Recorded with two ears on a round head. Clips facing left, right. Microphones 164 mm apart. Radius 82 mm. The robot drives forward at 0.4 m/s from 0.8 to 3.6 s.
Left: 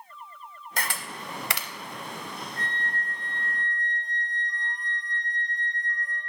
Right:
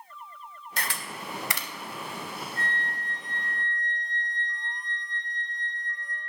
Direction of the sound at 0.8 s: 40° left (ahead or behind).